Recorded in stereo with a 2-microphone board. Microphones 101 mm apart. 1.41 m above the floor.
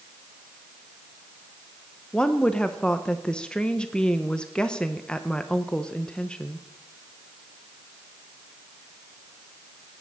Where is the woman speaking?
10° left (ahead or behind), 0.7 m.